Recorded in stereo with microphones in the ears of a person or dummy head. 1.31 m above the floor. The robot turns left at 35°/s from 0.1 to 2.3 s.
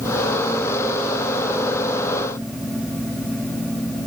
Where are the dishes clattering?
I don't hear dishes clattering.